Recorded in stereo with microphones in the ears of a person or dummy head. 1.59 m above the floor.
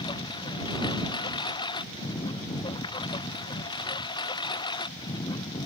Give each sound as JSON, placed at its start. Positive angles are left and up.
{"t": 0.0, "sound": "a lawn mower", "side_deg": 25}